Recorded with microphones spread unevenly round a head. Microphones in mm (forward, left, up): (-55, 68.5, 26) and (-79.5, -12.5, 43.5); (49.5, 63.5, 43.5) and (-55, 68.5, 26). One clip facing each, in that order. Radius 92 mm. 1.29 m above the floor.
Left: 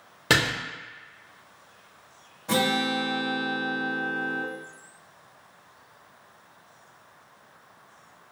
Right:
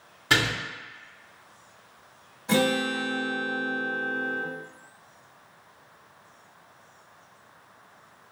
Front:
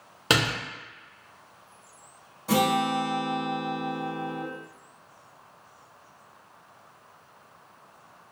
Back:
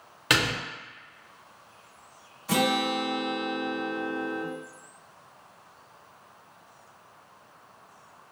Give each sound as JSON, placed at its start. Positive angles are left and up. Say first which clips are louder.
{"t": 0.3, "sound": "a door slam", "louder": "left 1 dB, front 1 dB", "azimuth_deg": 45, "distance_m": 1.3}
{"t": 2.5, "sound": "a guitar", "louder": "right 1 dB, front 2 dB", "azimuth_deg": 5, "distance_m": 1.7}